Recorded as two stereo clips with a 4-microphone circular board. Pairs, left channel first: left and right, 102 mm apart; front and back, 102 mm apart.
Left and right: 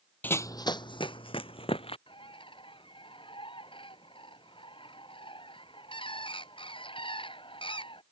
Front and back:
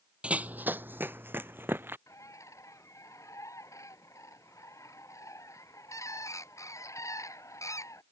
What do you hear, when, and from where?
0.2 s running footsteps: 125° left; by 2.0 s 110° left
2.1 s a bird: 60° left